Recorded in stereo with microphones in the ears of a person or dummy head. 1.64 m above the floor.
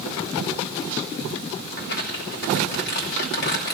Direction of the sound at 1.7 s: 45° left (ahead or behind).